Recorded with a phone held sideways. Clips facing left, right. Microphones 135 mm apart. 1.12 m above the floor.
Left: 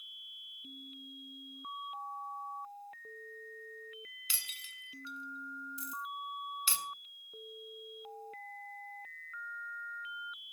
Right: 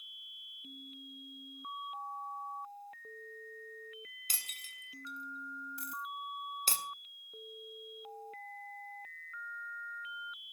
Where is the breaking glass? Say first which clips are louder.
Right 1 dB; 40° right (ahead or behind), 1.5 m.